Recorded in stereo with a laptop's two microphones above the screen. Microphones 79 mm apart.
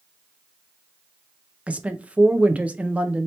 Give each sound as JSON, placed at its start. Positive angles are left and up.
{"t": 1.7, "sound": "a woman speaking", "side_deg": -15, "distance_m": 0.6}